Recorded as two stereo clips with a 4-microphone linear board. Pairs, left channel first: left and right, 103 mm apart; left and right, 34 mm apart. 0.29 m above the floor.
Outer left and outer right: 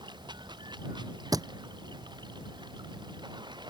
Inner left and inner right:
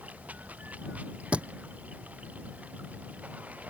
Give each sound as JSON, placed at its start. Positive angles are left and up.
{"t": 0.0, "sound": "running water", "side_deg": -45}
{"t": 1.3, "sound": "a thud", "side_deg": -35}